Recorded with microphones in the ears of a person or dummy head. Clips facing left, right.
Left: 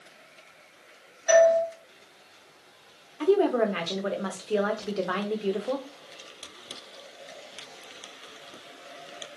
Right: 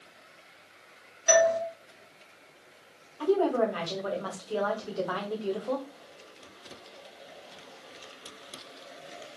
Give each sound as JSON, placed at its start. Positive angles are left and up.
{"t": 1.3, "sound": "a doorbell", "side_deg": -50, "distance_m": 1.2}
{"t": 3.2, "sound": "a woman speaking", "side_deg": 30, "distance_m": 0.6}